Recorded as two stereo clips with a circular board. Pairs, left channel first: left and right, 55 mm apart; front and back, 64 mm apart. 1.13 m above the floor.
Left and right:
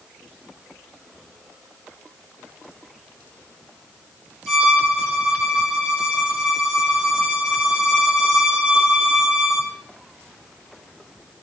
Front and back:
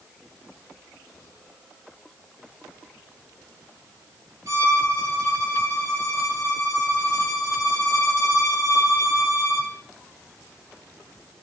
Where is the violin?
175° right, 3 m.